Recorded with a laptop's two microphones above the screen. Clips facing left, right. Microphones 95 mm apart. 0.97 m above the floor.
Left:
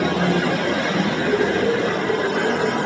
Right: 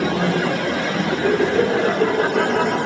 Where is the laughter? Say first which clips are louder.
Right 4 dB; 75° right (ahead or behind), 6.5 m.